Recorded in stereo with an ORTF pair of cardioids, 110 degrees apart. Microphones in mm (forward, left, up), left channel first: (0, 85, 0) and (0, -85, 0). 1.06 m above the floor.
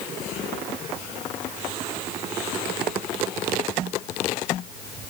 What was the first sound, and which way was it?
Only background noise.